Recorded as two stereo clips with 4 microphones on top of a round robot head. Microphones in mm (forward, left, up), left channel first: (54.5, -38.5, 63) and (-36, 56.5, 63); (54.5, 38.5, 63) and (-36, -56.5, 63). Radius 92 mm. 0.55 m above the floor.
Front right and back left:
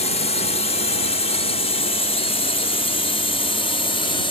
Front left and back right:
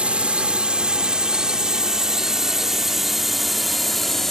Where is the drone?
55° right; by 4.3 s 40° right.